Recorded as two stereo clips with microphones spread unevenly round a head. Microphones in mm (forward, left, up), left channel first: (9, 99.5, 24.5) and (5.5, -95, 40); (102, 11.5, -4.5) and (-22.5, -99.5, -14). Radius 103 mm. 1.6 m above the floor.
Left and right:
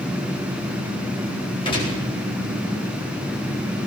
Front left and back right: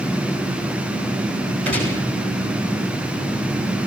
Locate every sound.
1.6 s a gunshot: 155° left, 9.5 m